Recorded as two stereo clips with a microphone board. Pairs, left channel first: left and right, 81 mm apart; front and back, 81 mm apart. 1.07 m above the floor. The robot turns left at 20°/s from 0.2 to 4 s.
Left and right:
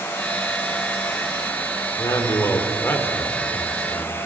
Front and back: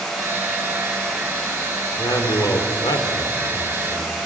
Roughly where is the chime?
I don't hear a chime.